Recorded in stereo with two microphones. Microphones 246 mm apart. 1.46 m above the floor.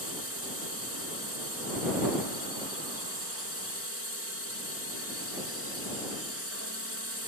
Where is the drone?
60° right (ahead or behind).